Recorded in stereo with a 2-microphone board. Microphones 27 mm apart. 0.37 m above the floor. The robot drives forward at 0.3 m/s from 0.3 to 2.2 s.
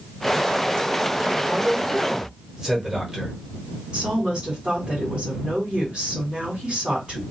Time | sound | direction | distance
1.4 | a man speaking | 20° right (ahead or behind) | 1.1 m
3.9 | a woman speaking | 35° right (ahead or behind) | 2 m